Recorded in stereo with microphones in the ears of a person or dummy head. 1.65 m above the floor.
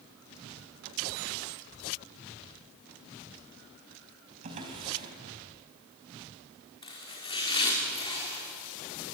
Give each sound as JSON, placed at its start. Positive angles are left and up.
{"t": 4.4, "sound": "a drawer", "side_deg": -45, "distance_m": 4.0}
{"t": 6.8, "sound": "chopping", "side_deg": 25, "distance_m": 4.5}